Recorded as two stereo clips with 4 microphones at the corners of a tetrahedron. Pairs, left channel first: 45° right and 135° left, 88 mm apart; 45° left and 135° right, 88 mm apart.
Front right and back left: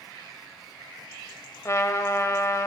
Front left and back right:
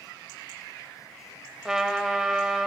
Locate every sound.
1.6 s a trumpet: 55° right, 0.6 m